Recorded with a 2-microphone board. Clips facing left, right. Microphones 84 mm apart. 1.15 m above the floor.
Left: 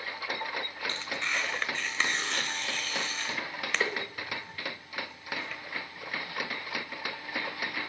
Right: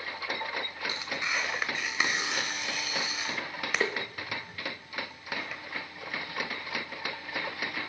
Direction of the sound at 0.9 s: 10° right (ahead or behind).